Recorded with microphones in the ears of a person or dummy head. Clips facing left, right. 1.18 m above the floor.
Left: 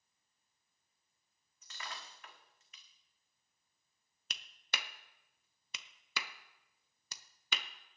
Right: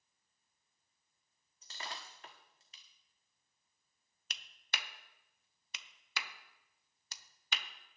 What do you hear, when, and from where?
1.6 s breaking glass: 25° right (ahead or behind), 1.3 m
4.3 s a clap: 70° left (ahead or behind), 0.7 m